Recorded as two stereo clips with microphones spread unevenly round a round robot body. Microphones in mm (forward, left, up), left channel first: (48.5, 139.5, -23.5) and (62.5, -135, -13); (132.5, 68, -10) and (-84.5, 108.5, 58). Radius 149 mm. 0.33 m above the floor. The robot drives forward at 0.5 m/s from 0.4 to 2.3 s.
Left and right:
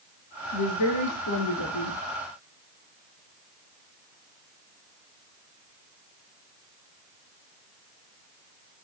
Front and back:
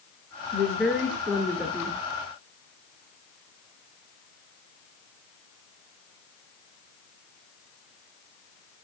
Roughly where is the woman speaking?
Left.